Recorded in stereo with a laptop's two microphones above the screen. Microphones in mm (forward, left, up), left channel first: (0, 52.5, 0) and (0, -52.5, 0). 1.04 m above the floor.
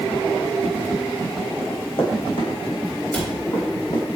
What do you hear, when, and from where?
1.6 s running footsteps: 65° left (ahead or behind), 3 m; by 4.0 s 40° left (ahead or behind), 4.5 m
3.1 s a cupboard door: 15° left (ahead or behind), 3 m